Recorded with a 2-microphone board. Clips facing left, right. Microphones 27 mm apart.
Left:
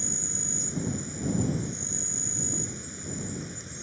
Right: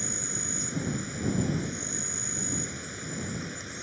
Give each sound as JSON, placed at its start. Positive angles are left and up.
{"t": 0.0, "sound": "an insect", "side_deg": -25}